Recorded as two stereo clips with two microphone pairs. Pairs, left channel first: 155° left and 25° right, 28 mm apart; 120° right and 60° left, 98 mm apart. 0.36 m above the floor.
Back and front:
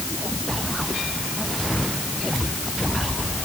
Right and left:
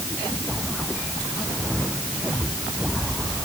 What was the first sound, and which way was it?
Only background noise.